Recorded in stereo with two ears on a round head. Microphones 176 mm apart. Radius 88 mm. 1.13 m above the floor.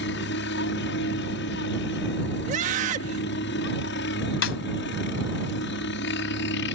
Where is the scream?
40° right (ahead or behind).